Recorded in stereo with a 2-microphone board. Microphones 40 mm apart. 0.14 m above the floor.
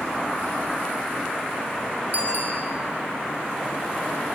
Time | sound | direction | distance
2.1 | a bicycle bell | 45° right (ahead or behind) | 4 m